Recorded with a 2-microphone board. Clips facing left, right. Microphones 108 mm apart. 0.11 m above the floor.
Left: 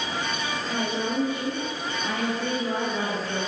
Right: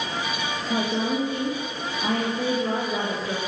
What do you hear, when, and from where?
0.7 s a woman speaking: 35° right (ahead or behind), 8 m